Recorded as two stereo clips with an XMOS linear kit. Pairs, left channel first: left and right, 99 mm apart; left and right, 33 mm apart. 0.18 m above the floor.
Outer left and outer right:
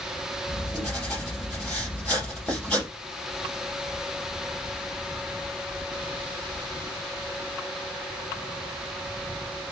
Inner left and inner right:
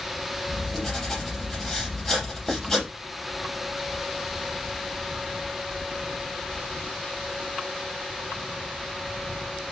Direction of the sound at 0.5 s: 10° left (ahead or behind).